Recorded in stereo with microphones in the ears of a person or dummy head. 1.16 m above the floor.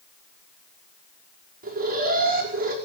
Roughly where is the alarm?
Right.